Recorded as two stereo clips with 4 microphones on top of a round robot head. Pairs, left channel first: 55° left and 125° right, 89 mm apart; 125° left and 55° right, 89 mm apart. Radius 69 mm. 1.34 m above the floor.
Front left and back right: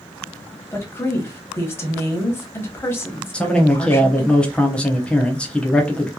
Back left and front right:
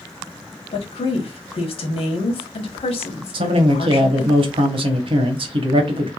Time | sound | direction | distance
0.7 | a woman speaking | 115° left | 1.1 m
3.3 | a man speaking | 25° right | 0.8 m